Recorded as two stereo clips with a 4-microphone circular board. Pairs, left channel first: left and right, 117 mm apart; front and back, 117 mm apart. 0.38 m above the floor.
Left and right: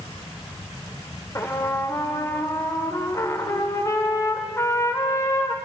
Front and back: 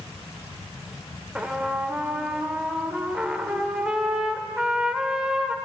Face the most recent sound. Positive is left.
turn(degrees=110)